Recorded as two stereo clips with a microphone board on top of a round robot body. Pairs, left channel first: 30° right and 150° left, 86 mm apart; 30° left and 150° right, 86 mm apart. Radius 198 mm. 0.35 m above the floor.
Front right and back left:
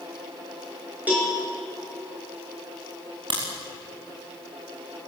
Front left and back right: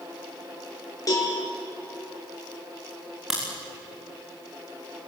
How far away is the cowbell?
About 7 m.